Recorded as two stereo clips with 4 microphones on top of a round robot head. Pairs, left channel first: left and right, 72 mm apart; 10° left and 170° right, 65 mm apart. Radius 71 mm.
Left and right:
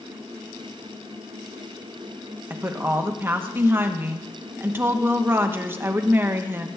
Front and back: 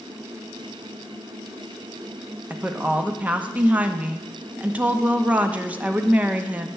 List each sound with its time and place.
2.5 s a woman speaking: 120° right, 0.8 m